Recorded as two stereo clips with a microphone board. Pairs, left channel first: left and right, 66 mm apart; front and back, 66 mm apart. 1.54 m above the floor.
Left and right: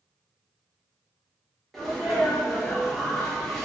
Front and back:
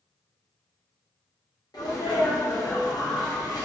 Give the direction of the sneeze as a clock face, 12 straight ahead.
12 o'clock.